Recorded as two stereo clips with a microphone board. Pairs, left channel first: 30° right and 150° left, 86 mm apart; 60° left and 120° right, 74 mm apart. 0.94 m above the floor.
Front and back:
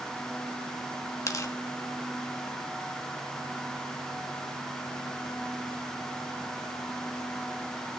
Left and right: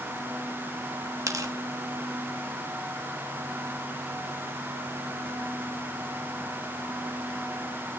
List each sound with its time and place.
1.3 s tearing paper: 80° right, 1.3 m